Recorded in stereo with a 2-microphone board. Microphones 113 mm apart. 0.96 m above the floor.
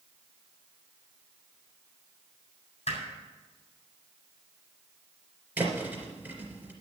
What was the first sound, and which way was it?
Hammering, 75° left (ahead or behind).